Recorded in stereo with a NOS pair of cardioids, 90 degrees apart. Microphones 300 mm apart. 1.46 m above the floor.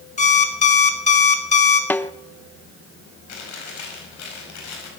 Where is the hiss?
No hiss in this recording.